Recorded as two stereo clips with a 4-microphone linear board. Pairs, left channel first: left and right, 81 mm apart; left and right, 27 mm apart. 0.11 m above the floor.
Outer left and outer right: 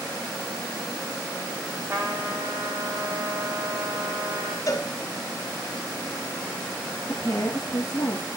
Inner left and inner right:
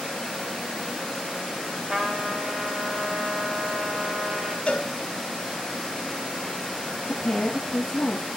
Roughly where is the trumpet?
Right.